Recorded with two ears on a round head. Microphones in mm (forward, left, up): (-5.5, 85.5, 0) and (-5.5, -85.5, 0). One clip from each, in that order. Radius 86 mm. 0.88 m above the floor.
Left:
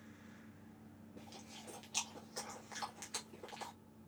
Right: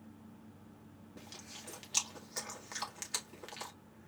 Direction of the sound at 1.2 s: 30° right (ahead or behind).